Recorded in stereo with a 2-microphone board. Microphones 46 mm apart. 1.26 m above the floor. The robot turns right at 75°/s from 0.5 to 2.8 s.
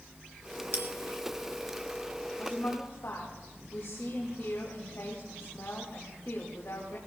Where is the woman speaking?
55° left, 2.5 m; by 7.0 s 85° left, 2.5 m.